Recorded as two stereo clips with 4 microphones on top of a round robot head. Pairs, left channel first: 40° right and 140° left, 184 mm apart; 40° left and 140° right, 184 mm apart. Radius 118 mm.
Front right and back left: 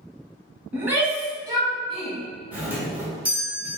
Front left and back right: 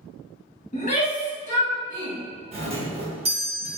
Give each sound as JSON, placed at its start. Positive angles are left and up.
{"t": 0.7, "sound": "a shout", "azimuth_deg": 65, "distance_m": 1.3}
{"t": 2.5, "sound": "a doorbell", "azimuth_deg": -145, "distance_m": 1.2}